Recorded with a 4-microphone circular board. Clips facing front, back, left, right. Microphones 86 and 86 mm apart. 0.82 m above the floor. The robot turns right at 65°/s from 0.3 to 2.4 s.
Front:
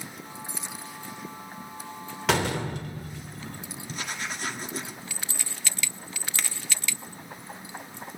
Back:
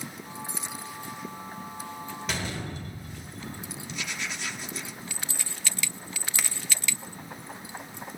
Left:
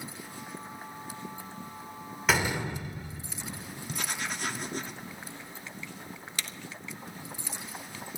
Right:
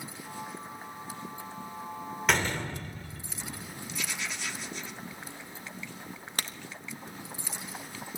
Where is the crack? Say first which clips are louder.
Even, right 3 dB; 95° right, 1.3 m.